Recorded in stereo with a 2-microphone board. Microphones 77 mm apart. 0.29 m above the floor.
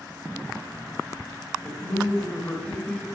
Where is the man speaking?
15° left (ahead or behind), 1.3 m.